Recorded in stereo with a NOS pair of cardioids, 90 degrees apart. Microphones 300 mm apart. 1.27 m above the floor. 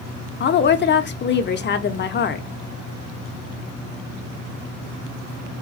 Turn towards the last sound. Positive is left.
turn(degrees=40)